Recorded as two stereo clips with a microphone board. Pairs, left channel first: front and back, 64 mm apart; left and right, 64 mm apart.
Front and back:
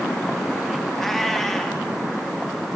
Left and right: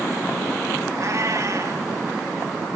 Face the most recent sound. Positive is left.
turn(degrees=-85)